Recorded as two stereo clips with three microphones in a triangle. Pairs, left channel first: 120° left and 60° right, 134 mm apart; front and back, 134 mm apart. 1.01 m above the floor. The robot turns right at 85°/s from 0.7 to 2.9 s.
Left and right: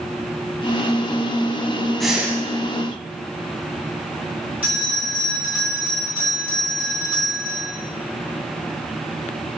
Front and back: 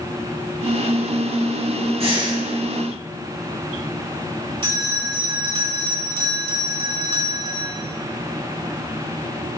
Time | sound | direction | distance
2.0 | breathing | 155° right | 1.3 m
4.6 | a bell | 135° right | 2.5 m